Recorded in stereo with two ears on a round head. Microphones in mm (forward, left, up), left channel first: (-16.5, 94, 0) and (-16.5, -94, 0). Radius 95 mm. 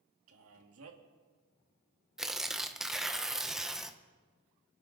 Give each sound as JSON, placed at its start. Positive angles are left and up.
{"t": 0.3, "sound": "a man speaking", "side_deg": -80, "distance_m": 2.0}
{"t": 2.2, "sound": "tearing paper", "side_deg": 0, "distance_m": 0.9}